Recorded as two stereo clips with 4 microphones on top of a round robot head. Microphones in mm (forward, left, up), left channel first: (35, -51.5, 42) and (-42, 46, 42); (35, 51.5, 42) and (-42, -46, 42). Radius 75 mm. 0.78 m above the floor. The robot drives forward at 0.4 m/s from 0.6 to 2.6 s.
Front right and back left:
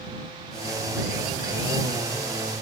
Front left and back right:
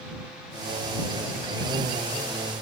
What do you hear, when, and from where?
Only background noise.